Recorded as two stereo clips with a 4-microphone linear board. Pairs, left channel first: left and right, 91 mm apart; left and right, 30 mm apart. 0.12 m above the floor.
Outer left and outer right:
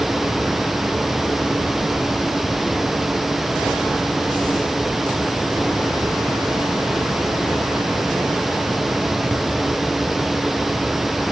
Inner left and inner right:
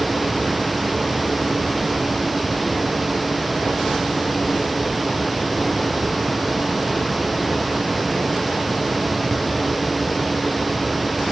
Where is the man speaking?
I don't hear a man speaking.